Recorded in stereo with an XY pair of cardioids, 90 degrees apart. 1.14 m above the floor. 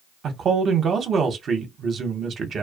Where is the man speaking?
60° right, 0.7 m.